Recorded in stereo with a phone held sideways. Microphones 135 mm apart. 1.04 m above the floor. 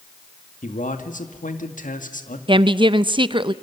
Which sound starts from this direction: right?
A woman speaking, at 2.5 s.